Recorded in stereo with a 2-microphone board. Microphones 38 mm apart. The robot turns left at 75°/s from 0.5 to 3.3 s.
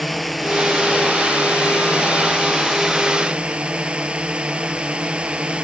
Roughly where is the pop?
I don't hear a pop.